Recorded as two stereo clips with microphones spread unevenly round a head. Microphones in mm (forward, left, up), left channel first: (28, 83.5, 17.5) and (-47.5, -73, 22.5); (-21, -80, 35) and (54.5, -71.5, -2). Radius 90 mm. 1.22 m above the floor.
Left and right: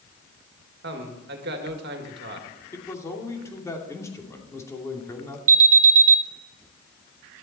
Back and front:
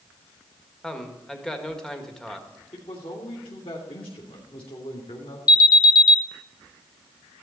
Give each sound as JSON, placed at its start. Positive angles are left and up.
{"t": 0.8, "sound": "a man speaking", "azimuth_deg": -85, "distance_m": 2.0}
{"t": 2.7, "sound": "a man speaking", "azimuth_deg": 140, "distance_m": 2.5}
{"t": 5.5, "sound": "an alarm", "azimuth_deg": -130, "distance_m": 0.8}